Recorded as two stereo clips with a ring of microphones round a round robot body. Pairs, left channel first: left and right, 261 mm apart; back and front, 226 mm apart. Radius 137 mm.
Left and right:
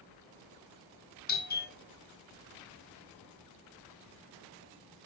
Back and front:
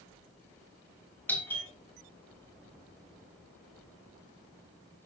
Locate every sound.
1.3 s a doorbell: 105° left, 2 m